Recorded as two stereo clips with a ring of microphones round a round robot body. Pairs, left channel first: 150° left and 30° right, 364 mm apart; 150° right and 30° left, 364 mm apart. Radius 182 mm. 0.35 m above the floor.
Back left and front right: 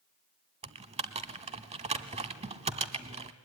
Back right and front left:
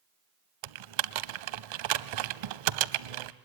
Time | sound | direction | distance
0.6 | typing on a keyboard | 45° left | 0.7 m